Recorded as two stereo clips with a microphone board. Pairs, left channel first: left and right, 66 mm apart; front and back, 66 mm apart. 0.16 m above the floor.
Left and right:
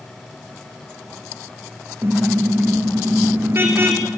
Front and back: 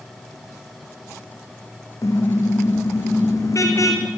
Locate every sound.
2.0 s a car horn: 35° right, 4.5 m